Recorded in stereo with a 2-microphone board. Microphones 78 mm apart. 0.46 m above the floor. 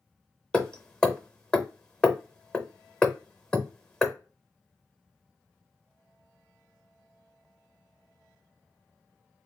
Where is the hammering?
10° left (ahead or behind), 0.5 m.